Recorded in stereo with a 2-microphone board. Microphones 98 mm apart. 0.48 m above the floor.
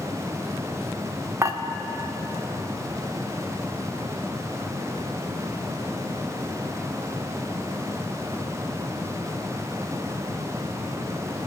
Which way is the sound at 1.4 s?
30° right (ahead or behind).